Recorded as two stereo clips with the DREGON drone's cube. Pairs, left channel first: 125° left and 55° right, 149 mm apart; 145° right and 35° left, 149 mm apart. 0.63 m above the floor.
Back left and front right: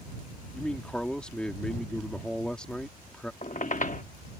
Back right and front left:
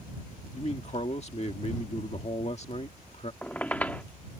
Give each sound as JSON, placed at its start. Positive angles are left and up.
{"t": 0.5, "sound": "a man speaking", "azimuth_deg": -155}
{"t": 3.4, "sound": "a squeak", "azimuth_deg": 135}